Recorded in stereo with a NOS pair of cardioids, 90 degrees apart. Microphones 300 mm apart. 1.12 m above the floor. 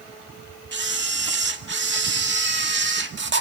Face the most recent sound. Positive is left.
turn(degrees=-35)